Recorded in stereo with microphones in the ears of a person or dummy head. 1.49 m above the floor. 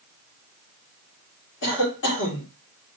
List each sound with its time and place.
1.6 s a cough: 60° left (ahead or behind), 1.9 m